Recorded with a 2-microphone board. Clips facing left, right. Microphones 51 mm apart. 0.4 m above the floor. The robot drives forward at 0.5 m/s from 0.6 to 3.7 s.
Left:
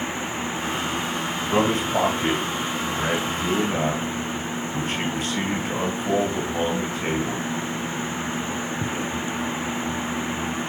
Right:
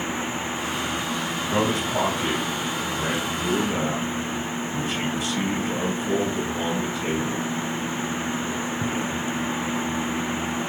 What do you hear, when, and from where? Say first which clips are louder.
1.5 s a man speaking: left 3 dB; 40° left (ahead or behind), 2 m; by 7.5 s 50° left (ahead or behind), 1.6 m